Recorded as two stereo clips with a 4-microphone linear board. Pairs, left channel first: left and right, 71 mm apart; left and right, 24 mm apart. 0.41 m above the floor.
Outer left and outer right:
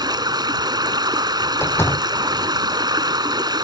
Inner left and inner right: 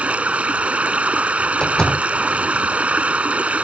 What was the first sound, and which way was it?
Running water, 75° right (ahead or behind).